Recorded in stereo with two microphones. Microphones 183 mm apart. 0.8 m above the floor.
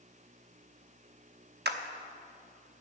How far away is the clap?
About 0.8 m.